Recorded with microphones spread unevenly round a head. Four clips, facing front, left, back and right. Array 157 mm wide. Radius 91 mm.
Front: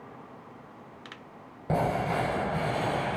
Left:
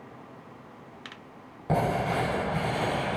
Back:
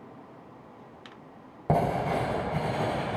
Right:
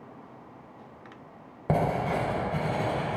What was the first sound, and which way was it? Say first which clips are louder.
Writing: even, back 2 dB; 165° right.